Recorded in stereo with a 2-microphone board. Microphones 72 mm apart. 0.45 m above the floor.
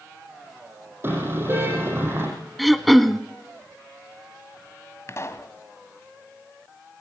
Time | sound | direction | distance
1.0 | a car horn | 30° right (ahead or behind) | 7.5 m
2.6 | throat clearing | centre (ahead or behind) | 1.0 m
5.1 | a pop | 40° left (ahead or behind) | 1.9 m